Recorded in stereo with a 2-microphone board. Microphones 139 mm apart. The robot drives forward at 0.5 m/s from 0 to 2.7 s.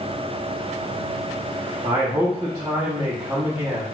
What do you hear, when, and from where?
1.8 s a man speaking: 35° right (ahead or behind), 0.7 m; by 3.8 s 30° right (ahead or behind), 0.8 m